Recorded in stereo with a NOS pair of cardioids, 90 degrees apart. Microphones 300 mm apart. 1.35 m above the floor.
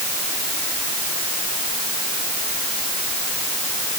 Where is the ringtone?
No ringtone in this recording.